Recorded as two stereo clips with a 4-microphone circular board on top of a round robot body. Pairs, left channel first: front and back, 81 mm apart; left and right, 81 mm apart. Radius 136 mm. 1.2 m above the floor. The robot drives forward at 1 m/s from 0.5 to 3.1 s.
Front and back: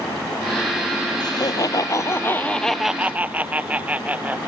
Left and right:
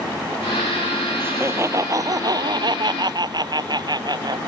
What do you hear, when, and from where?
1.2 s laughter: 30° right; by 4.5 s 110° right